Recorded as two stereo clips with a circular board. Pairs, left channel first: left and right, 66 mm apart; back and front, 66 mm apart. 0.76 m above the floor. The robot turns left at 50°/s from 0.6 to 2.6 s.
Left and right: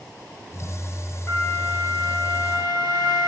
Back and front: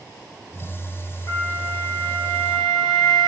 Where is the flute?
145° left, 0.7 m; by 3.3 s 80° left, 0.7 m.